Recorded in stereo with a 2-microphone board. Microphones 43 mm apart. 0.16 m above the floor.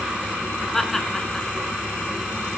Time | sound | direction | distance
0.7 | laughter | 5° left (ahead or behind) | 1.8 m